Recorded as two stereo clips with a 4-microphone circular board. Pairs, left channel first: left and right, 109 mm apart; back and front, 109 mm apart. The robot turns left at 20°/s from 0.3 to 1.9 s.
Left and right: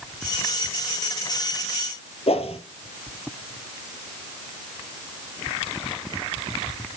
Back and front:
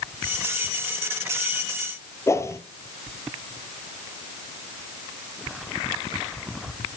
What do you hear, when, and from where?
2.3 s a whoosh: 115° left, 0.9 m